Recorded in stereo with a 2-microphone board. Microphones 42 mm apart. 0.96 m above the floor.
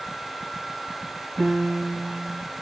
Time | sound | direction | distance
1.4 | a piano | 15° right (ahead or behind) | 8 m